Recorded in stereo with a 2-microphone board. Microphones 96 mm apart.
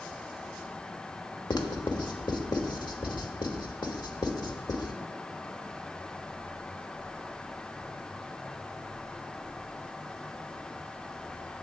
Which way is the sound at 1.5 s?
50° left (ahead or behind).